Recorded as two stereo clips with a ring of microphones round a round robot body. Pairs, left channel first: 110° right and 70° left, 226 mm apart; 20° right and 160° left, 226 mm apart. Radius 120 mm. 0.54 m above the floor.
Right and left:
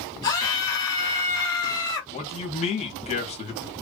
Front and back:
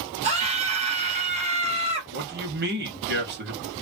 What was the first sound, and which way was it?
A scream, 170° right.